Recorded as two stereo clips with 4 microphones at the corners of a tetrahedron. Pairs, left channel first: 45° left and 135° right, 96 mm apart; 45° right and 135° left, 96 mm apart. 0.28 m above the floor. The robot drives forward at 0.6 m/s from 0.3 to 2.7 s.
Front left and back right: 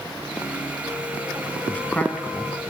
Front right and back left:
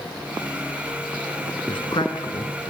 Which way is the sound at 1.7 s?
25° right.